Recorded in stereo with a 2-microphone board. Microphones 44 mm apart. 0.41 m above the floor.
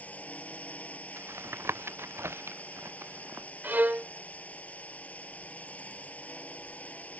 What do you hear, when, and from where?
0.0 s a drone: 35° left (ahead or behind)
1.2 s tapping: 70° right (ahead or behind)
3.6 s a violin: 45° right (ahead or behind)